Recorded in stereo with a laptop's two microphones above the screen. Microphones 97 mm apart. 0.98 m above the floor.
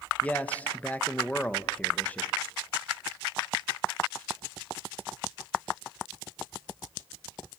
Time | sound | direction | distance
0.2 | a man speaking | 15° left (ahead or behind) | 1.0 m